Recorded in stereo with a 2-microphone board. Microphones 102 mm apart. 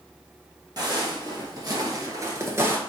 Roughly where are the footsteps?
Right.